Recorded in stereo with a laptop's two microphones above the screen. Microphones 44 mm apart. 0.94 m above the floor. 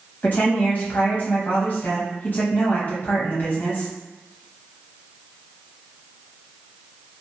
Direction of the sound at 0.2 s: 45° left (ahead or behind).